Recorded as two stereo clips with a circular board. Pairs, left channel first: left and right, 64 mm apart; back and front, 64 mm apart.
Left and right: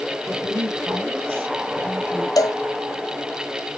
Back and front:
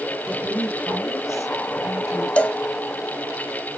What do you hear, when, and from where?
0.3 s a woman speaking: 125° right, 3 m; by 2.3 s 165° right, 3 m
2.4 s a cowbell: 110° left, 0.6 m